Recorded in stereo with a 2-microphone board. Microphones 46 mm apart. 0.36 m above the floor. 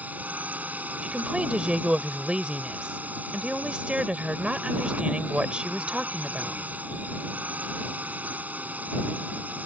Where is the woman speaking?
25° right (ahead or behind).